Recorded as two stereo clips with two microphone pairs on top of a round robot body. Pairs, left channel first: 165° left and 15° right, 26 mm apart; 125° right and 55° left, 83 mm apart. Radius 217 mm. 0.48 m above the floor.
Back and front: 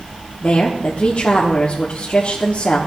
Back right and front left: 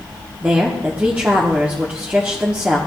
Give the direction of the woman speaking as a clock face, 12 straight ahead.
8 o'clock.